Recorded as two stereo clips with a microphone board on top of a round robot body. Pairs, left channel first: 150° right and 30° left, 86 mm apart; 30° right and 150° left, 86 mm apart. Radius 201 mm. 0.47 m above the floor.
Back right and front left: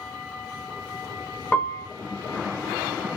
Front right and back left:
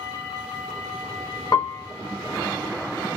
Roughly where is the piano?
Right.